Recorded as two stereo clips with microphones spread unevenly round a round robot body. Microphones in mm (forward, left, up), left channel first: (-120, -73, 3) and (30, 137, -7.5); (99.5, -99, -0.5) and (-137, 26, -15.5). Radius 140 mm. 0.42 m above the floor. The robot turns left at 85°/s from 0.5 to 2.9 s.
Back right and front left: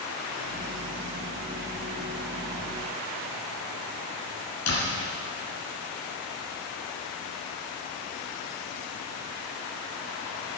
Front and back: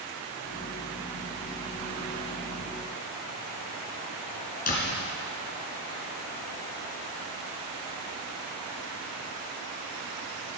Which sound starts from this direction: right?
A door slam, at 4.7 s.